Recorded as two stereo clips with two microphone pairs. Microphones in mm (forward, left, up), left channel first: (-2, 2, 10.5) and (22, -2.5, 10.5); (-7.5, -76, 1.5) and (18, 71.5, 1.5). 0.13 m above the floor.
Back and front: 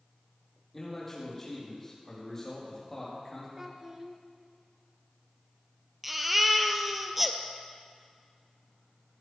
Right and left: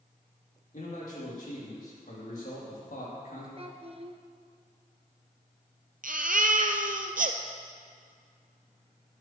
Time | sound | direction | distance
0.7 | a man speaking | 115° right | 6.5 m
3.6 | a child speaking | 50° left | 1.4 m
6.0 | a baby crying | 70° left | 1.1 m